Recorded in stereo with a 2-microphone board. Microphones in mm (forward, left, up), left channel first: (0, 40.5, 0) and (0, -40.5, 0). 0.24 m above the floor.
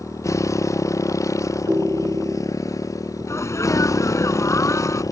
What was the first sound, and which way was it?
A motorcycle, 40° left (ahead or behind).